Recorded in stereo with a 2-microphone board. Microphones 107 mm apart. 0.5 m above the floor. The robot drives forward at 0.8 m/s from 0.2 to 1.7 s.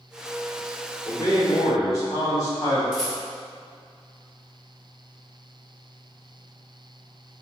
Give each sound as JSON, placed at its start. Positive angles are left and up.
{"t": 1.1, "sound": "a man speaking", "side_deg": 40, "distance_m": 1.0}
{"t": 2.9, "sound": "a rattle", "side_deg": -5, "distance_m": 1.4}